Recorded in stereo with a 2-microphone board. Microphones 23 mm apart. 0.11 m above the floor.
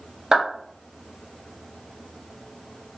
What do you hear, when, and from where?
0.3 s a clap: 35° right (ahead or behind), 1.7 m